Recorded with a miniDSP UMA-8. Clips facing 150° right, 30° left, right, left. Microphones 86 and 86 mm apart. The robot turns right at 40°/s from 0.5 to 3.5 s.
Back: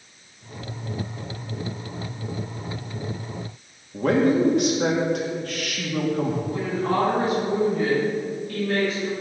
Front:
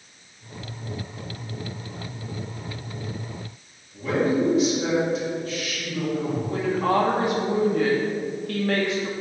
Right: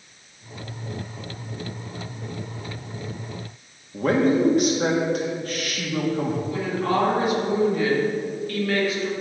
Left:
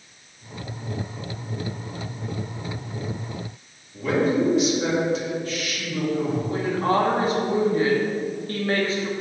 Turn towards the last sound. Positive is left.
turn(degrees=35)